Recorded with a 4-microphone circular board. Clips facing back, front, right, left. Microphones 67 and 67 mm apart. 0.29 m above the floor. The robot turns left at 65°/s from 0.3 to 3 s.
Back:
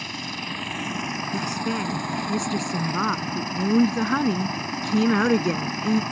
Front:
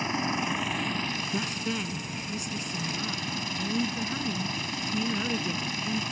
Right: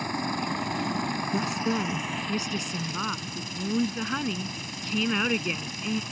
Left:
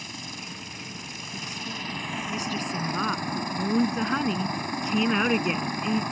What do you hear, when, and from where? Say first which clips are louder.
0.0 s a helicopter: front 4 dB, right 10 dB; 60° right; by 6.1 s 125° left
1.3 s a woman speaking: back 7 dB, right 8 dB; 85° right; by 6.0 s 165° left